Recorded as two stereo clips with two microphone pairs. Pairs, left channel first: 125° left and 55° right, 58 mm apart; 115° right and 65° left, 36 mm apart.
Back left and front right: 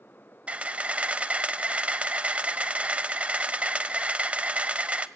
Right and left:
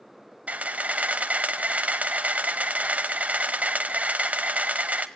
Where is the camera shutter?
15° left, 0.8 m.